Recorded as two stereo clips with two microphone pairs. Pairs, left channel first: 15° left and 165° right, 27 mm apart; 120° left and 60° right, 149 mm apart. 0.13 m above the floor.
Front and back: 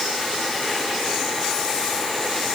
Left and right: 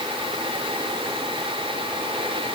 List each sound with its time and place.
Only background noise.